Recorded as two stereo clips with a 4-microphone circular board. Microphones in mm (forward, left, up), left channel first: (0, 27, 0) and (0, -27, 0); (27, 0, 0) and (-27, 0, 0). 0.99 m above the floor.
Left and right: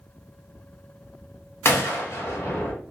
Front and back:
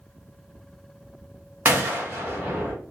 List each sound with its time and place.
1.6 s a gunshot: 130° left, 0.9 m